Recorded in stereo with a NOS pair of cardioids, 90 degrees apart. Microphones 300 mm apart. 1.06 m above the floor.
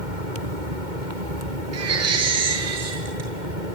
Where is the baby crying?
55° right, 8 m.